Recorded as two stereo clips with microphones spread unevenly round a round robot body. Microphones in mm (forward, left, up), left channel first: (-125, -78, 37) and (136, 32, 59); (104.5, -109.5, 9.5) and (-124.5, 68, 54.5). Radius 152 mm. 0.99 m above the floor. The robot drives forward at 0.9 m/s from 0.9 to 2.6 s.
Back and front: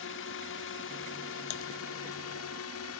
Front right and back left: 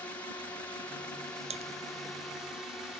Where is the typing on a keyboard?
150° right.